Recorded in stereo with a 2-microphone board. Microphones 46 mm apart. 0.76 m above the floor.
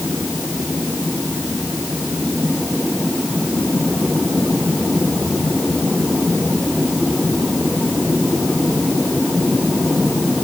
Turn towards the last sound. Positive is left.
No sound to turn to.